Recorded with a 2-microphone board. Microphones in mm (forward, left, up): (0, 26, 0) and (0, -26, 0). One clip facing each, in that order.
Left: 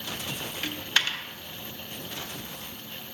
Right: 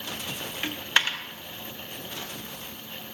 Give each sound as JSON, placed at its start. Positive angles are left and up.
{"t": 0.6, "sound": "a dropped coin", "side_deg": -25, "distance_m": 0.9}